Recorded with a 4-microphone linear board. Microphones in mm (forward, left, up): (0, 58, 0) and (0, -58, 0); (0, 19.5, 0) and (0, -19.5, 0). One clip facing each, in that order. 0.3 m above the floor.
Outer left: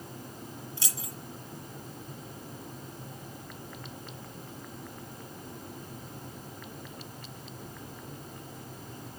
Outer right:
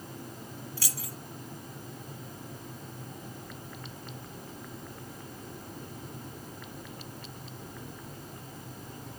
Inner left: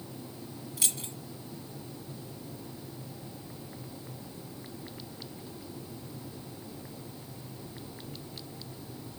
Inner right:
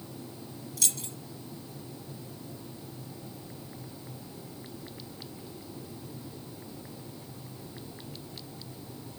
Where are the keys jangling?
25° left (ahead or behind), 1.8 m.